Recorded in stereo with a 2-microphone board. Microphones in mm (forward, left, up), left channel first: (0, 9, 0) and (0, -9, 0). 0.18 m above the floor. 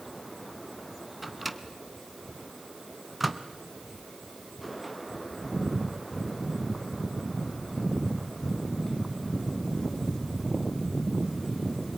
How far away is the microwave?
About 1.3 m.